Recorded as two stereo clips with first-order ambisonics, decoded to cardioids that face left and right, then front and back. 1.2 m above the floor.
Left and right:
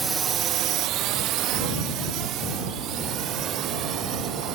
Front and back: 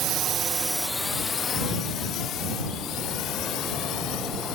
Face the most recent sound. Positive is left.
turn(degrees=-40)